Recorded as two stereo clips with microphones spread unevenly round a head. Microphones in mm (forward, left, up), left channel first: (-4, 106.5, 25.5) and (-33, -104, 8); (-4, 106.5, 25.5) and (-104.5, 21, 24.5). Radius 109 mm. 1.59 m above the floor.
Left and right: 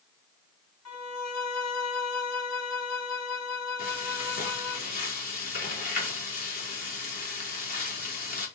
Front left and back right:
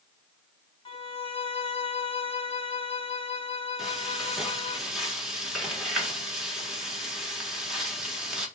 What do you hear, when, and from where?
0.8 s a violin: 85° left, 2.5 m
3.8 s frying: 135° left, 4 m